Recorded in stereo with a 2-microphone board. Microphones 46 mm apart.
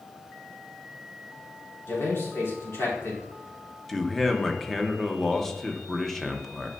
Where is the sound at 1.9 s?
65° left (ahead or behind), 3.5 m.